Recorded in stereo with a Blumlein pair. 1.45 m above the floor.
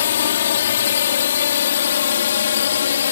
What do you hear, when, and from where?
0.0 s a drone: 65° left